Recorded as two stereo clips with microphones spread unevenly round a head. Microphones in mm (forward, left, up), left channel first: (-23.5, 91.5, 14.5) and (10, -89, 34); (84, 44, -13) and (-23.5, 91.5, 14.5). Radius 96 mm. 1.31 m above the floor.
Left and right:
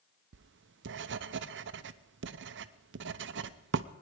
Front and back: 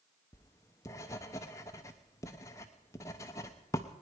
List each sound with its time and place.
0.3 s writing: 85° right, 0.6 m